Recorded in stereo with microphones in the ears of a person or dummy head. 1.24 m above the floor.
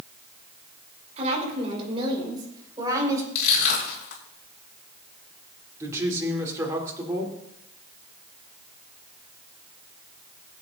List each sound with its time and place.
1.2 s a woman speaking: 35° right (ahead or behind), 4 m; by 3.2 s 15° right (ahead or behind), 4.5 m
3.4 s crushing: 60° left (ahead or behind), 4.5 m
5.8 s a woman speaking: 15° right (ahead or behind), 3 m